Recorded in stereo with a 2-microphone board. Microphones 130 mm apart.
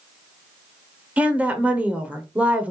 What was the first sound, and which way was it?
A woman speaking, 10° right (ahead or behind).